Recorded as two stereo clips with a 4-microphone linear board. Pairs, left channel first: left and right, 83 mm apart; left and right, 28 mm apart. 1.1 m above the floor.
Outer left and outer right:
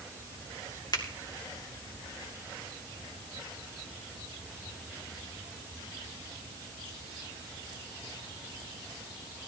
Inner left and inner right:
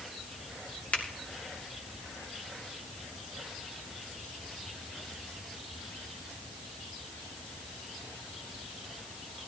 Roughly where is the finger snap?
Left.